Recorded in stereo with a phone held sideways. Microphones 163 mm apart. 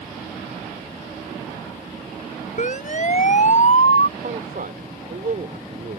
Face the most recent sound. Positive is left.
turn(degrees=-65)  # may be behind; listen again after turning